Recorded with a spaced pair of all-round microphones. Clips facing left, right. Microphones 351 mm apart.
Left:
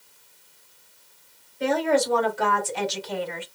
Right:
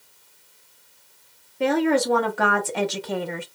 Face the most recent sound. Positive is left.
turn(degrees=-55)  # may be behind; listen again after turning